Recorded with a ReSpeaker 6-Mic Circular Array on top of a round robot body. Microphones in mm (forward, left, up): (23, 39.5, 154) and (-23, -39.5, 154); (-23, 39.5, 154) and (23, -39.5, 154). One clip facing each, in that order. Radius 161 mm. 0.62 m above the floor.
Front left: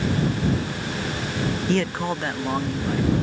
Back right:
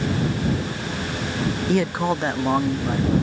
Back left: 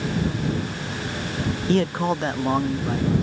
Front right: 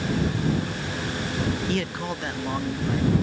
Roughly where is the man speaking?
Behind left.